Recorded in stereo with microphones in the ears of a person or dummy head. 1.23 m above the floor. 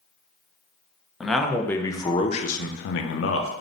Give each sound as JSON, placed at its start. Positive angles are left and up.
{"t": 1.2, "sound": "a man speaking", "side_deg": 0, "distance_m": 1.0}